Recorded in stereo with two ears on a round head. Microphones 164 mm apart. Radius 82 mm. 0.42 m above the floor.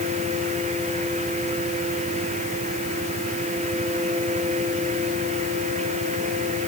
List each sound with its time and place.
Only background noise.